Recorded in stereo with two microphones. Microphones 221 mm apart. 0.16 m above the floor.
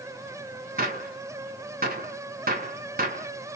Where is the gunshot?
40° right (ahead or behind), 0.9 m.